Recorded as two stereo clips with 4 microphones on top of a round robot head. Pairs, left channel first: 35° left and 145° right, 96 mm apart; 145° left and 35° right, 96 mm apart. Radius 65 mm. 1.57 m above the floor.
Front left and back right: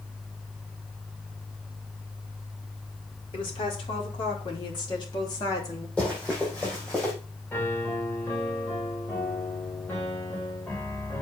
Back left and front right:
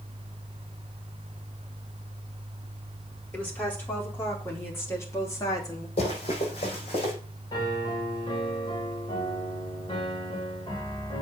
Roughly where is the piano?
Left.